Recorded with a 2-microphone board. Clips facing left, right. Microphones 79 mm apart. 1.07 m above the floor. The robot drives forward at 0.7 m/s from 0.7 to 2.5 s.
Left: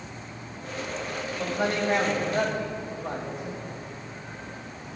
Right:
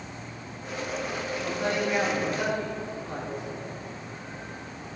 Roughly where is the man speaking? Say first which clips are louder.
Left 2 dB; left.